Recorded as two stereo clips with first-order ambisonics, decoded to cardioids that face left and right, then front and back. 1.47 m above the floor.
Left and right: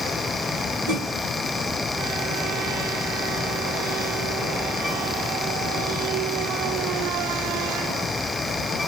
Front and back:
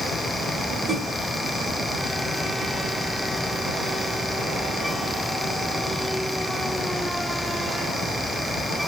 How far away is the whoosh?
About 3.5 m.